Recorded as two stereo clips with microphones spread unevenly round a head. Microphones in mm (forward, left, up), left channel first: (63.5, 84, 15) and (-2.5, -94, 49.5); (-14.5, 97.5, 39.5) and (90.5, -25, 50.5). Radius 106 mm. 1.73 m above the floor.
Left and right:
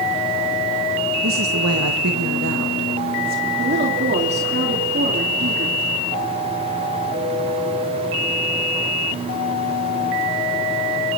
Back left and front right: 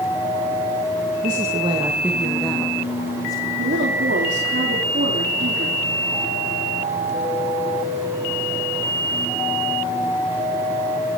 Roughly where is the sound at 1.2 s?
Right.